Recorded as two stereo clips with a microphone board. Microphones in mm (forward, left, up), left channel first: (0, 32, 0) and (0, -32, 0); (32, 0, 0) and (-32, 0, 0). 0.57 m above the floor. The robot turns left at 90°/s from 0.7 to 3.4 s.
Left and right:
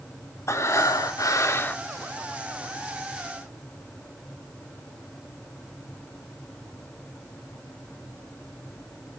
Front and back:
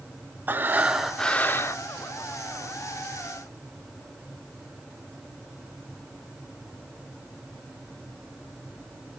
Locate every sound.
0.5 s breathing: 125° left, 0.6 m; by 1.8 s 25° left, 0.6 m